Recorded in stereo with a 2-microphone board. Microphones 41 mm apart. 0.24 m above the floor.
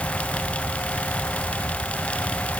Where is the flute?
I don't hear a flute.